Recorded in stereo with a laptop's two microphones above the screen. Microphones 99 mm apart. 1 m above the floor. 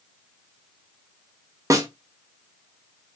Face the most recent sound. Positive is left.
turn(degrees=-30)  # may be behind; listen again after turning